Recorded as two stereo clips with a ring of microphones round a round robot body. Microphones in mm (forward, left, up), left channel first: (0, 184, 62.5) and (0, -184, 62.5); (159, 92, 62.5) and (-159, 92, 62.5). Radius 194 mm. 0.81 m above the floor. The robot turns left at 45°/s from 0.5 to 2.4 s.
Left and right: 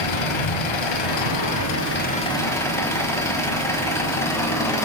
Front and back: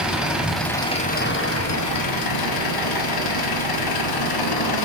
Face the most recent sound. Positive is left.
turn(degrees=5)